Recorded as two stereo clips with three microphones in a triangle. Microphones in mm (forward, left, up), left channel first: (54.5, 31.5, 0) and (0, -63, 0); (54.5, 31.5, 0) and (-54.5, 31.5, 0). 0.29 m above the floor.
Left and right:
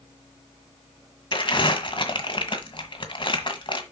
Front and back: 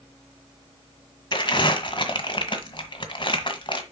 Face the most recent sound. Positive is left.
turn(degrees=30)